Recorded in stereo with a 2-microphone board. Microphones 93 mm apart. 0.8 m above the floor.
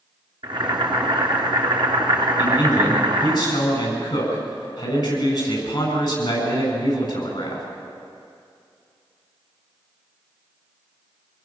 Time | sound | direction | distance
0.4 | boiling | 55° right (ahead or behind) | 3 m
2.4 | a man speaking | 45° left (ahead or behind) | 7.5 m